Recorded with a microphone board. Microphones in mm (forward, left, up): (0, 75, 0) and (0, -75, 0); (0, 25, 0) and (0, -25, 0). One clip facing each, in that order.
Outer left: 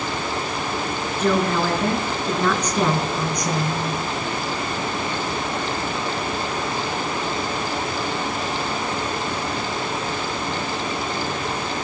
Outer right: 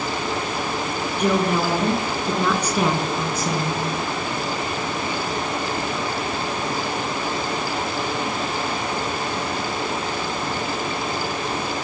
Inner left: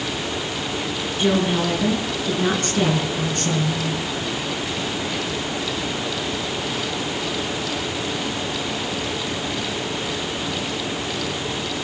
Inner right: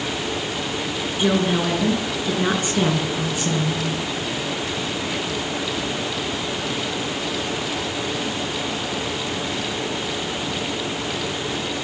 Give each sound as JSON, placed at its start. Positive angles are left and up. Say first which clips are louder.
{"t": 1.2, "sound": "a woman speaking", "louder": "even, even", "side_deg": -15, "distance_m": 9.0}